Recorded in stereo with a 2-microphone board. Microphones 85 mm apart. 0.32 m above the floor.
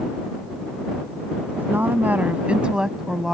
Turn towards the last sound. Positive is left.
turn(degrees=0)  # may be behind; listen again after turning